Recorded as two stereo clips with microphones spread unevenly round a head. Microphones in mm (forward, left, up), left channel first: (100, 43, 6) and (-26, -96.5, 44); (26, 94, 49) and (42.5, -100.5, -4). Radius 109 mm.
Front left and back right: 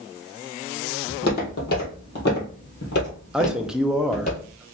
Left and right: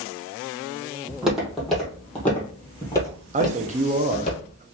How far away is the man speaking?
About 0.6 m.